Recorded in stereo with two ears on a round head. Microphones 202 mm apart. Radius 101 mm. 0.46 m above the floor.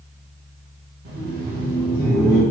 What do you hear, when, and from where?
1.1 s laughter: 45° right (ahead or behind), 1.3 m; by 2.4 s 5° left (ahead or behind), 2 m